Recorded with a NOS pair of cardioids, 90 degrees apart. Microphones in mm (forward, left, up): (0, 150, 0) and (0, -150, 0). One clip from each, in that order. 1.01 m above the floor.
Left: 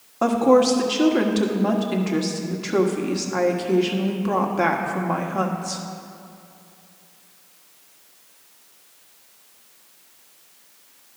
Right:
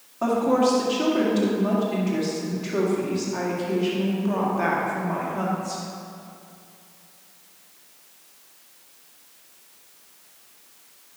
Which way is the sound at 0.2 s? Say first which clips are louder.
Left 4 dB; 45° left.